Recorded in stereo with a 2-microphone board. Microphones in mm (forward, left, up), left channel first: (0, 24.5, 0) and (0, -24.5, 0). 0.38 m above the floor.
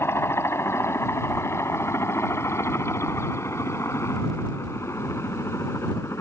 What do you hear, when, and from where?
0.0 s a helicopter: 60° left (ahead or behind); by 6.2 s 70° left (ahead or behind)